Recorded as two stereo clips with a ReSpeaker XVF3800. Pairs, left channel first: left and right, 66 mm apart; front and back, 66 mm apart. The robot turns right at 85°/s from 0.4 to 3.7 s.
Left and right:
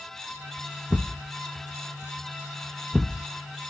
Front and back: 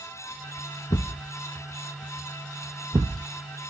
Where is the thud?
Straight ahead, 0.5 m; by 3.3 s 155° right, 0.5 m.